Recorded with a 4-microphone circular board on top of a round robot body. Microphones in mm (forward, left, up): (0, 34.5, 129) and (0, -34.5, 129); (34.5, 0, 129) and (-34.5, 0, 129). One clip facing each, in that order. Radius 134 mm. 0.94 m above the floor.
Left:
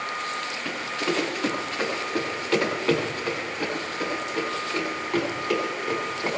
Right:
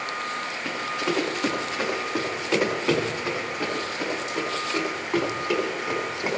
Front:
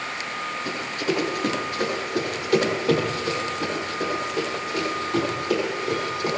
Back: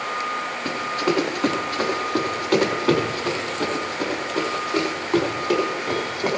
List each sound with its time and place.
0.7 s running footsteps: 170° right, 7 m; by 6.4 s 165° right, 9.5 m